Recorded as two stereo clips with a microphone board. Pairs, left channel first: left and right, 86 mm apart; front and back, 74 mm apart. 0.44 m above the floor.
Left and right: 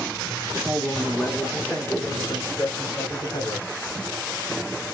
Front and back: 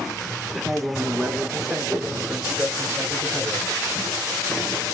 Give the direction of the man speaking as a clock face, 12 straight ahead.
3 o'clock.